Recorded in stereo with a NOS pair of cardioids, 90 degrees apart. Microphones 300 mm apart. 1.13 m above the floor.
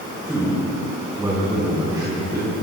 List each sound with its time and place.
0.2 s a man speaking: straight ahead, 5.5 m; by 2.5 s 15° right, 7.5 m